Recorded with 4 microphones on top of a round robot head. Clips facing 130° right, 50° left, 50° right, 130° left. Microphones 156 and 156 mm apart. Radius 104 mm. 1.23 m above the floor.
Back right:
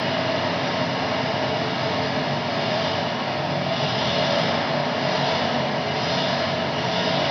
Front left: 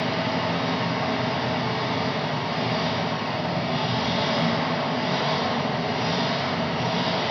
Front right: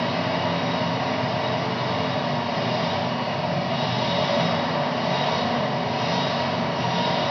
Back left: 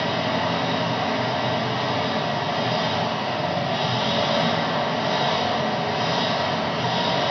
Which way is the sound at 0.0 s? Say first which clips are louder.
Back right 2 dB, even; 125° right.